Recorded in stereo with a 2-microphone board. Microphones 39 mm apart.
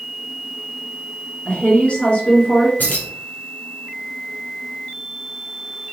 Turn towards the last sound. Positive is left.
turn(degrees=50)  # may be behind; listen again after turning